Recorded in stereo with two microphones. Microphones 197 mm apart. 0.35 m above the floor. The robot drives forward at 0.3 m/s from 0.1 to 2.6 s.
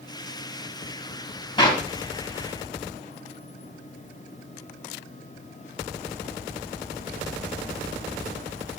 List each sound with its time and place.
1.6 s a clap: 25° left (ahead or behind), 2.0 m